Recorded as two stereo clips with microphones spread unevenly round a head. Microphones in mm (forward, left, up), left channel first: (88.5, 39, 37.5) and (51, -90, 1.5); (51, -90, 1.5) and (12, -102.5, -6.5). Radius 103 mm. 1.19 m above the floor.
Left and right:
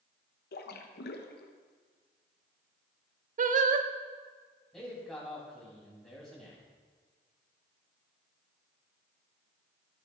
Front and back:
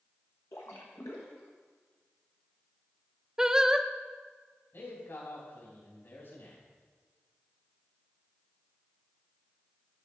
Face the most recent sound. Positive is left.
turn(degrees=-10)